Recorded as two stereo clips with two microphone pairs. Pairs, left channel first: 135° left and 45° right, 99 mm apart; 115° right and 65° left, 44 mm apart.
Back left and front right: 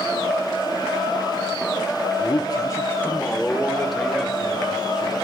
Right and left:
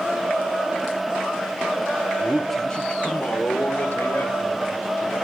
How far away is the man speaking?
About 0.7 m.